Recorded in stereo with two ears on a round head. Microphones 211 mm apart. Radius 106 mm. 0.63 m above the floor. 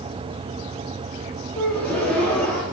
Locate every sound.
1.6 s a gasp: 5° left (ahead or behind), 2.5 m